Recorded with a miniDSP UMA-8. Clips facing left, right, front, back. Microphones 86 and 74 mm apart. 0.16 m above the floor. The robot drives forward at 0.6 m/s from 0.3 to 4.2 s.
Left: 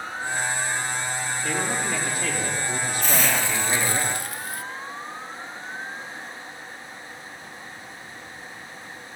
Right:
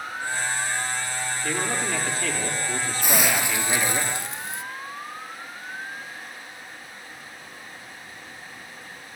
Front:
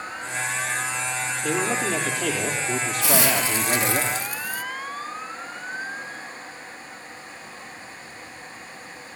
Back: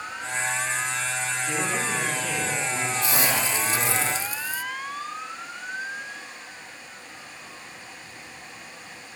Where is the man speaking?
10° left, 5 m.